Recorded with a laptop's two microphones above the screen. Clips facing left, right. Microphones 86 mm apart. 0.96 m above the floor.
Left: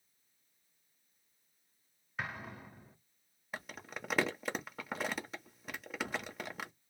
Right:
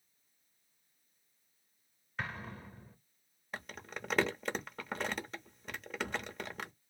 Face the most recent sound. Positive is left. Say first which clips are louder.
# even
turn(degrees=5)  # may be behind; listen again after turning